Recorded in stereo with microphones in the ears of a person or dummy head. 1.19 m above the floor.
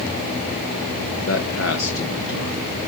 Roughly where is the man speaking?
Left.